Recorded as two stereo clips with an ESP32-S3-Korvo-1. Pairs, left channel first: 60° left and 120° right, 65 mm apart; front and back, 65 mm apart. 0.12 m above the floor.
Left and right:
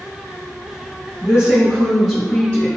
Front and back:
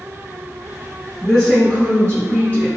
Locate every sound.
1.2 s a woman speaking: 80° right, 1.7 m; by 2.7 s 20° left, 1.7 m